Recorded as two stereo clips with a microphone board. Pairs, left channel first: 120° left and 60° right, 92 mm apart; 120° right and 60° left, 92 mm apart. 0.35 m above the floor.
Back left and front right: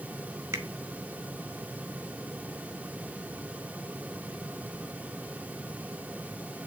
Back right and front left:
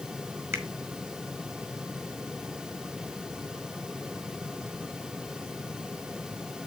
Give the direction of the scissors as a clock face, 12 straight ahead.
I don't hear scissors.